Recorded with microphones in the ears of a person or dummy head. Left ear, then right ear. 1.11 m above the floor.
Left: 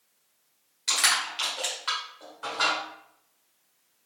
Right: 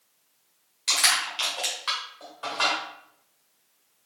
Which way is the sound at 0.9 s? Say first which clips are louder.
Right 2 dB; centre (ahead or behind).